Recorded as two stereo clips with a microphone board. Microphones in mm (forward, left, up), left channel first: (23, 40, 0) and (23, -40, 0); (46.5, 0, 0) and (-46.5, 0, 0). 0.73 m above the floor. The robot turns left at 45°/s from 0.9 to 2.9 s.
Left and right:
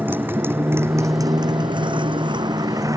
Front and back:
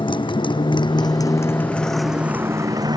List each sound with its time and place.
0.0 s a motorcycle: 25° right; by 3.0 s 140° right